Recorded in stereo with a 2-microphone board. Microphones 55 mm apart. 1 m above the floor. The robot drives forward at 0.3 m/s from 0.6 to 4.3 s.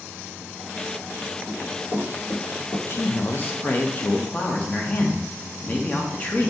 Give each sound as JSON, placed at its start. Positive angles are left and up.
{"t": 1.5, "sound": "running footsteps", "side_deg": 60, "distance_m": 1.9}
{"t": 2.9, "sound": "a man speaking", "side_deg": 40, "distance_m": 0.5}